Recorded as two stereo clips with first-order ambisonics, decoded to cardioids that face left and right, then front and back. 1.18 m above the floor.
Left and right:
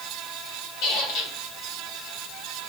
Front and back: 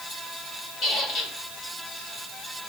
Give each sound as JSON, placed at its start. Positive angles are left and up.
{"t": 0.8, "sound": "a squeak", "azimuth_deg": 60, "distance_m": 2.5}